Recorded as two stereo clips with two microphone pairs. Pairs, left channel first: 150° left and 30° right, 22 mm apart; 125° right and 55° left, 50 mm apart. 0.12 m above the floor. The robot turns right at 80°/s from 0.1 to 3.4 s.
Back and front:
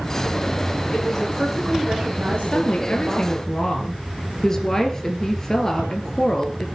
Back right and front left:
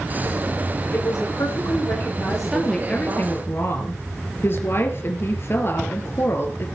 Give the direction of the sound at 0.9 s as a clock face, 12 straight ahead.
5 o'clock.